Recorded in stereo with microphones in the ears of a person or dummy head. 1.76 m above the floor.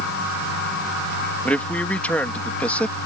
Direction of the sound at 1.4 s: 10° left (ahead or behind).